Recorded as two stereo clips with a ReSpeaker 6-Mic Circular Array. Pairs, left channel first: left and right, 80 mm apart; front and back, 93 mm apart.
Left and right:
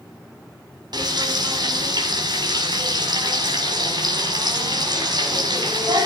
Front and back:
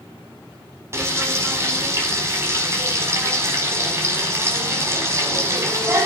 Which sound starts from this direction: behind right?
Frying, at 0.9 s.